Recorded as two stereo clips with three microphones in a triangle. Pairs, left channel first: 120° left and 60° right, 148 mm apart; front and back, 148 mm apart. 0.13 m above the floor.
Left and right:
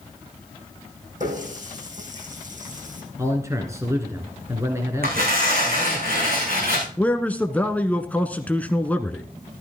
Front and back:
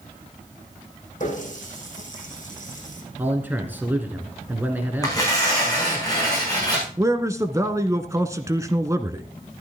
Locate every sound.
1.2 s a running tap: 30° right, 5 m
3.2 s a man speaking: 110° right, 2 m
5.0 s tearing paper: 65° right, 7 m
7.0 s a man speaking: straight behind, 1.1 m